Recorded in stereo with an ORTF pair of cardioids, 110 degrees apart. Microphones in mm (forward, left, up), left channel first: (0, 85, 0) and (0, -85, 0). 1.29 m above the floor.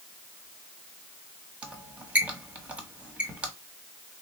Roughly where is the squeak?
Ahead.